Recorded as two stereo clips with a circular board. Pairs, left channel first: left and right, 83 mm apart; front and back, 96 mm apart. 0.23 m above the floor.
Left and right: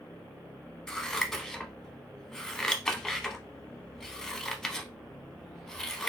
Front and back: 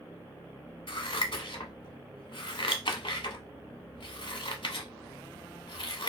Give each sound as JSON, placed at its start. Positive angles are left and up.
{"t": 0.9, "sound": "scissors", "azimuth_deg": 5, "distance_m": 0.7}